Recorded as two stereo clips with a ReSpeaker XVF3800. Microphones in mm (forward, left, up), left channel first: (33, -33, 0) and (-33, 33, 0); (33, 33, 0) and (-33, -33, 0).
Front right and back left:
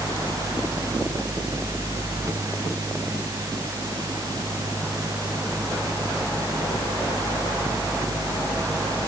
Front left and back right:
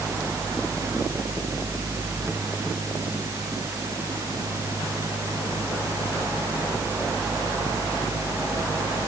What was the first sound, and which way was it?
Only background noise.